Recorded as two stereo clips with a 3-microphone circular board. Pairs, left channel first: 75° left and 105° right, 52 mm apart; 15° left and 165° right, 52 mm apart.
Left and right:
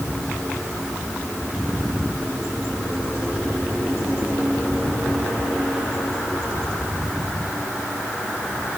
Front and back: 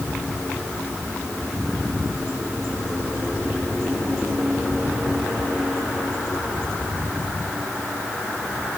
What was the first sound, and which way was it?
Only background noise.